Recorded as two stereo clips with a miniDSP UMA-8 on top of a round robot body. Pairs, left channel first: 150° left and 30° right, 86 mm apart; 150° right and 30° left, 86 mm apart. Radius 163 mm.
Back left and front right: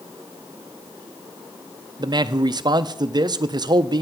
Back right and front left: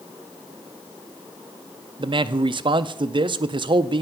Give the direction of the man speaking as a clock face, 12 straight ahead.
12 o'clock.